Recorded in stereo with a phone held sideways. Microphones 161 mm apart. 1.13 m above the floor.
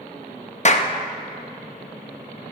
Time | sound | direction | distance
0.7 | a clap | 45° left (ahead or behind) | 0.7 m